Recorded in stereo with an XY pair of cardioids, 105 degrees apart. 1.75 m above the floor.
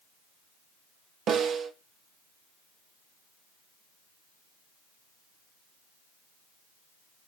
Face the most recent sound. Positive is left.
turn(degrees=-65)